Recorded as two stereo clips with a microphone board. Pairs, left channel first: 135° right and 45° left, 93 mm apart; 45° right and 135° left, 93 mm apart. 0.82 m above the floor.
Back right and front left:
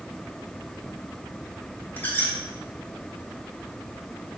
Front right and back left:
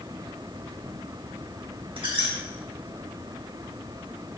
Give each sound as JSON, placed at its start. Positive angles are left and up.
{"t": 2.0, "sound": "a squeak", "azimuth_deg": 155, "distance_m": 3.0}